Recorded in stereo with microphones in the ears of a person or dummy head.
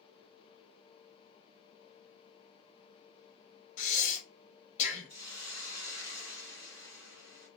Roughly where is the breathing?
Left.